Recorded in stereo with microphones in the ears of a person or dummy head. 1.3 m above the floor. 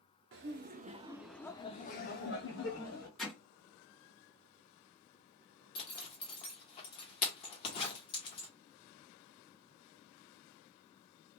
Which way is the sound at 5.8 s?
35° left (ahead or behind).